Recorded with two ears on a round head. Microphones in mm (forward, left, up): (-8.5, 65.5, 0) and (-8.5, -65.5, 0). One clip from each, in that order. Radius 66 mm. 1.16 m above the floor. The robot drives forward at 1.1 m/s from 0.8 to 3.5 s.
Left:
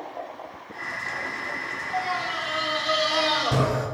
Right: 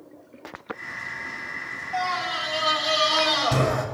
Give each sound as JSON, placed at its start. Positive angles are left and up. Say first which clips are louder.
{"t": 1.9, "sound": "a scream", "louder": "right 2 dB", "side_deg": -45, "distance_m": 2.0}